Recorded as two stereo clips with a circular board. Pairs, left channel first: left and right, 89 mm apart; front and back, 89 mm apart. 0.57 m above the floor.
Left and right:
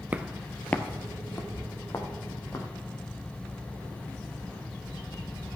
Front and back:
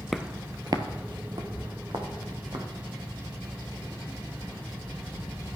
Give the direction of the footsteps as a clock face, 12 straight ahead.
3 o'clock.